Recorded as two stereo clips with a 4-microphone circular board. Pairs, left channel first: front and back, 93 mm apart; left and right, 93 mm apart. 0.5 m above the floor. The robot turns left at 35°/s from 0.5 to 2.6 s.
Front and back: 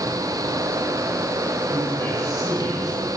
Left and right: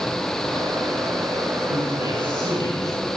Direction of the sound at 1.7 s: 75° left.